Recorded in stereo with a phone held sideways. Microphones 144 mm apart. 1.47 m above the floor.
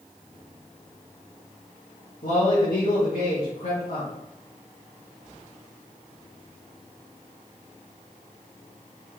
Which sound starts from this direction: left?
A man speaking, at 2.2 s.